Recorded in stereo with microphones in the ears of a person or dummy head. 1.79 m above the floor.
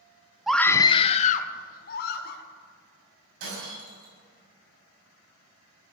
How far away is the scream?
About 0.6 m.